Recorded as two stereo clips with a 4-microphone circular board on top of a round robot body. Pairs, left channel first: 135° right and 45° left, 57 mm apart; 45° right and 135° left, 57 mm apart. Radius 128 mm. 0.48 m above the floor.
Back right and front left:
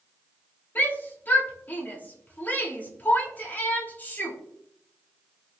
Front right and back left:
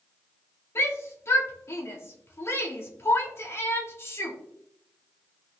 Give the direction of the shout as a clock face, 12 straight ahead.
3 o'clock.